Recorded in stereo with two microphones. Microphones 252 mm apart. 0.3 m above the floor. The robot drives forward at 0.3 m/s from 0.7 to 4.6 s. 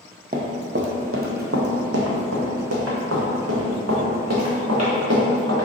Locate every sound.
0.3 s running footsteps: 35° right (ahead or behind), 0.7 m; by 5.7 s 70° right (ahead or behind), 2 m